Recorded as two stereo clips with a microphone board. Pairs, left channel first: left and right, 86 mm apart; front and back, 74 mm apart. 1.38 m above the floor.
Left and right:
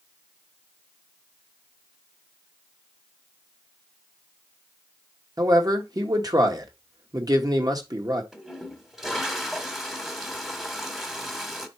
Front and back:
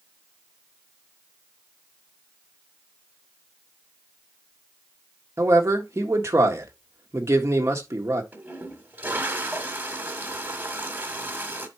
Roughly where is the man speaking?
Behind right.